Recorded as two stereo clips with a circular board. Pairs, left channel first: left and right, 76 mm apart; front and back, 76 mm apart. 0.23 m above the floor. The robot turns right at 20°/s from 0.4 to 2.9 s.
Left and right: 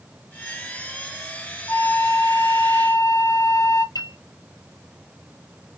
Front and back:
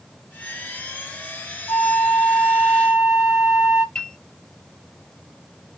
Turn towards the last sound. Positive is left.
turn(degrees=75)